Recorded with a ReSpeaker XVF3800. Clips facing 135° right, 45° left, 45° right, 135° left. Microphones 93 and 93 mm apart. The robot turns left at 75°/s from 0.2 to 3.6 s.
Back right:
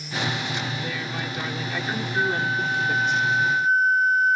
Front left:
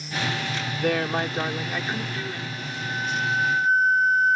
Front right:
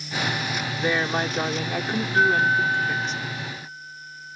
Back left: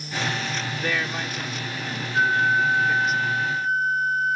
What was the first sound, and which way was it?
A woman speaking, 35° left.